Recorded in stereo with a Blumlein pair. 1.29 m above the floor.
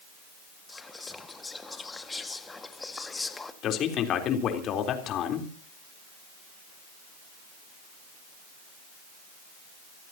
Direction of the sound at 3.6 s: 30° left.